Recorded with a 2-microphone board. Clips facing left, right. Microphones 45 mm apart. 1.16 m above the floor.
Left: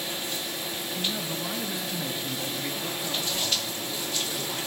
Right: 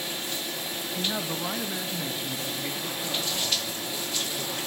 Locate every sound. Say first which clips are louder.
1.0 s a man speaking: right 2 dB; 45° right (ahead or behind), 1.2 m; by 4.6 s 20° left (ahead or behind), 4 m